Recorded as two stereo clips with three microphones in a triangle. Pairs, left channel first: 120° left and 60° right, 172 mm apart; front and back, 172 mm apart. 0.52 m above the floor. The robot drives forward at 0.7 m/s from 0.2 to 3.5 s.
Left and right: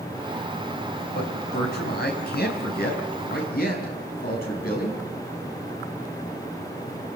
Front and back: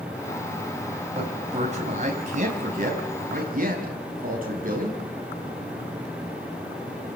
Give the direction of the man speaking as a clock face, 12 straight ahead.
8 o'clock.